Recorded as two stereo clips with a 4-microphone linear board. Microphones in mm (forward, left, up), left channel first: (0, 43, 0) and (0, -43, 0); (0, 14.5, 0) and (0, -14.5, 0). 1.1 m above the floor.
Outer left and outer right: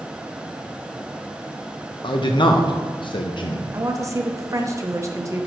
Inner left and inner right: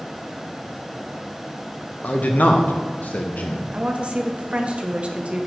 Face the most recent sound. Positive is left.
turn(degrees=-35)  # may be behind; listen again after turning